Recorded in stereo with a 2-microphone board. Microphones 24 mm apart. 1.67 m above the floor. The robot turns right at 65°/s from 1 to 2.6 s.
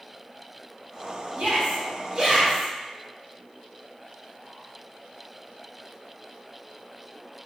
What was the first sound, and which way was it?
A shout, 75° right.